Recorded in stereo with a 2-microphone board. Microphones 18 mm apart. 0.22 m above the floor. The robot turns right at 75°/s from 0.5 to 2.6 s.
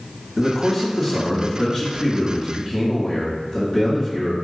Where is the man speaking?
10° right, 1.6 m; by 4.3 s 145° left, 1.6 m.